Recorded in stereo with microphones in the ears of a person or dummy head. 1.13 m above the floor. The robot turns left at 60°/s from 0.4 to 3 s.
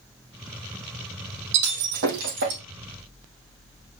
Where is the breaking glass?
60° right (ahead or behind), 3 m; by 2.6 s 45° right (ahead or behind), 3 m.